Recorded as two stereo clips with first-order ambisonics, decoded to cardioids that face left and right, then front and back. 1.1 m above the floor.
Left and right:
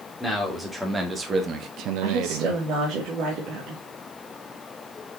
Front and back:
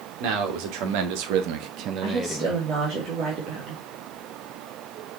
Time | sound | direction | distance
0.2 | a man speaking | straight behind | 3 m
2.0 | a woman speaking | 130° right | 2.5 m